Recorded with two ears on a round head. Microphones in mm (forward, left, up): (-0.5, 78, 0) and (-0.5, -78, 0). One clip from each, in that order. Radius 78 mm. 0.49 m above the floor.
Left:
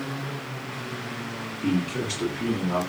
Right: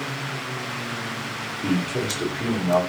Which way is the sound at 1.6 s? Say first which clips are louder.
Right 2 dB; 15° right (ahead or behind).